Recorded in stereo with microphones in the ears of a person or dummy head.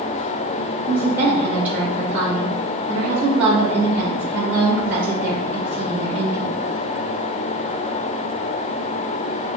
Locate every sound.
0.9 s a woman speaking: 5° right (ahead or behind), 0.7 m